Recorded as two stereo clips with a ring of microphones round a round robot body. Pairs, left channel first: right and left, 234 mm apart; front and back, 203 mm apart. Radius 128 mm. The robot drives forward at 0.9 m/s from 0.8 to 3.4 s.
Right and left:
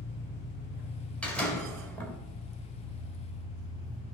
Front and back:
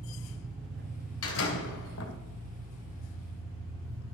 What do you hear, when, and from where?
0.0 s an engine running: 135° right, 3 m; by 4.1 s 155° right, 5 m
1.2 s a door slam: 5° right, 2.5 m